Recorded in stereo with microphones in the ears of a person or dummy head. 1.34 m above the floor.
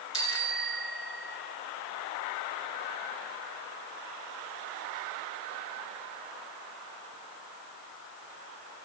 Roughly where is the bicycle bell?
Left.